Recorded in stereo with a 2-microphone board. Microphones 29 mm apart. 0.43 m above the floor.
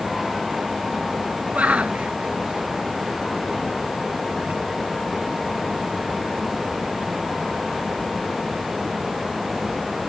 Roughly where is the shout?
Right.